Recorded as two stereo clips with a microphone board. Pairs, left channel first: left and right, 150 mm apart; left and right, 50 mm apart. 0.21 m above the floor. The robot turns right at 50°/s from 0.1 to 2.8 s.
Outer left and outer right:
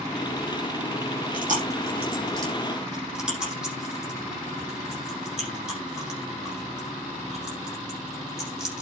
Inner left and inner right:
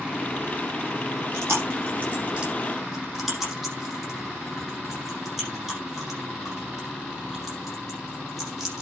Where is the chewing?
75° right (ahead or behind), 8 m; by 8.8 s 5° right (ahead or behind), 8 m.